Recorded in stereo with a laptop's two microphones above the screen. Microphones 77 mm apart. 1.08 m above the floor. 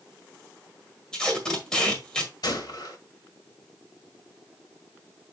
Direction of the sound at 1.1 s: 10° left (ahead or behind).